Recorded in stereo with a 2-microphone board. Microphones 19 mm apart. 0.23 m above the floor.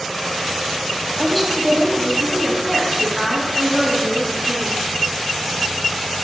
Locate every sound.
1.2 s a woman speaking: 5° left (ahead or behind), 1.0 m; by 4.8 s 5° right (ahead or behind), 2.5 m